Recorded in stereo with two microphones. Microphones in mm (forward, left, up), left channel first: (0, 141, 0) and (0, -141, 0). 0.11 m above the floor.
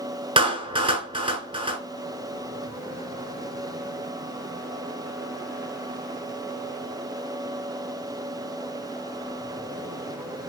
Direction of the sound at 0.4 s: 20° right (ahead or behind).